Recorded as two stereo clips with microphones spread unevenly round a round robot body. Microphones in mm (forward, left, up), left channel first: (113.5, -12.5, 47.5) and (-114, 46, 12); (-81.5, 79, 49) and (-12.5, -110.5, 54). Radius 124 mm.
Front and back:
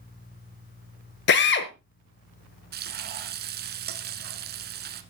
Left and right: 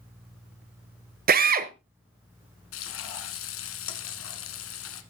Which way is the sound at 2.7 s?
115° left.